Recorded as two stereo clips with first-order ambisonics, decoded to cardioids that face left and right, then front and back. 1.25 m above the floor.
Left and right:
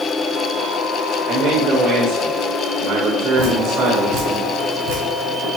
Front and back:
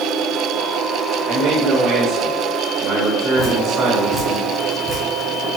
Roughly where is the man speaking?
Right.